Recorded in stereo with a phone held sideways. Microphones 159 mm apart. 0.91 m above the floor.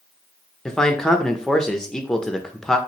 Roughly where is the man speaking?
Centre.